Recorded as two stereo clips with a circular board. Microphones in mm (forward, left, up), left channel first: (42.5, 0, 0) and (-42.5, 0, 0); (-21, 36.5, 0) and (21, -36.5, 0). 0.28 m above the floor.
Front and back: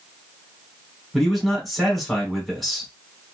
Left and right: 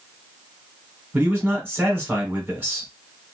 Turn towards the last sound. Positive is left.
turn(degrees=-90)